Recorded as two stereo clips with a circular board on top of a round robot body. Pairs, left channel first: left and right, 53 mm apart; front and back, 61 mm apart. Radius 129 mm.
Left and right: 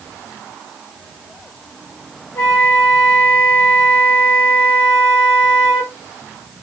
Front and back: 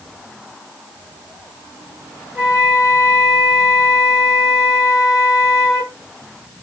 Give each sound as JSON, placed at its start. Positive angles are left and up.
{"t": 2.4, "sound": "a flute", "azimuth_deg": 105, "distance_m": 0.8}